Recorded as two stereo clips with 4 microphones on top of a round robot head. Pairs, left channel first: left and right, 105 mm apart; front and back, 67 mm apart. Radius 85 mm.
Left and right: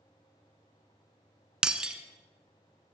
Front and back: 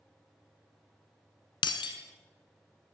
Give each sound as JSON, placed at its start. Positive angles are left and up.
{"t": 1.6, "sound": "breaking glass", "azimuth_deg": -10, "distance_m": 0.9}